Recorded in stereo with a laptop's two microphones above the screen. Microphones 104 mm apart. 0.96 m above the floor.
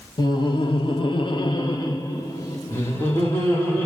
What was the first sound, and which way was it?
Laughter, 40° left (ahead or behind).